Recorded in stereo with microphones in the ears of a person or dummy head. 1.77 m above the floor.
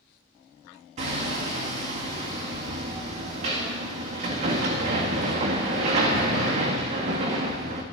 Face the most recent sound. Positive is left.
turn(degrees=-45)  # may be behind; listen again after turning